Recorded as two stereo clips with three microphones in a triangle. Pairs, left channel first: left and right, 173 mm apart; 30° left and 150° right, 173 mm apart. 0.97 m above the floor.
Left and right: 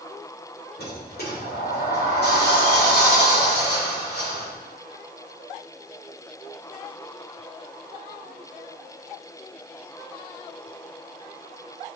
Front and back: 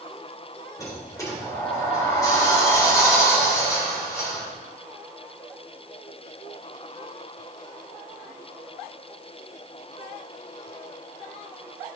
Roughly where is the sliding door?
Left.